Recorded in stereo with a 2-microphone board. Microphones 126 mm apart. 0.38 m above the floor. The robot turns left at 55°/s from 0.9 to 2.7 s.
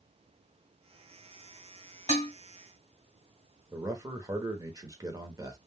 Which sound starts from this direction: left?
Dishes clattering, at 2.1 s.